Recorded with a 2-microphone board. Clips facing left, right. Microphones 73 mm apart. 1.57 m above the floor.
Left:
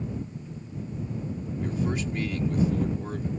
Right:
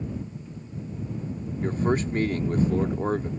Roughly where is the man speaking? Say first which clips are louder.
Right 5 dB; right.